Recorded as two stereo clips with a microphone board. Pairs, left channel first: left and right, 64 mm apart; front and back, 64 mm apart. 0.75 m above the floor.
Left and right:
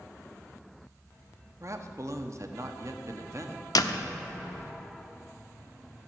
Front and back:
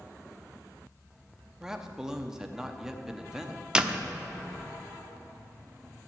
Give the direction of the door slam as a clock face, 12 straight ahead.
9 o'clock.